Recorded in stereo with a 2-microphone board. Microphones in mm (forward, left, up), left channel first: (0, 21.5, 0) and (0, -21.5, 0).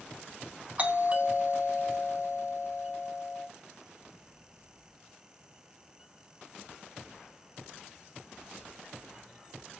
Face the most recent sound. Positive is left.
turn(degrees=-30)  # may be behind; listen again after turning